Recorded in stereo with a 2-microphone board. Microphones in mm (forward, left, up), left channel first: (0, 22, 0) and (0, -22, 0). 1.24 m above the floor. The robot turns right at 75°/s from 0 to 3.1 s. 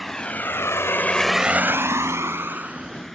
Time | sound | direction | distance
0.0 | a vehicle | centre (ahead or behind) | ?